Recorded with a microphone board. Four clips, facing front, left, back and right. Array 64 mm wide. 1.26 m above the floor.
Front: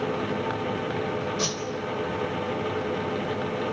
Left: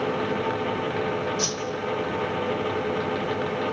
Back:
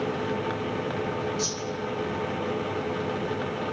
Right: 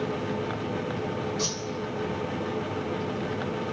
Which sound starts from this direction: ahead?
A whoosh, at 1.4 s.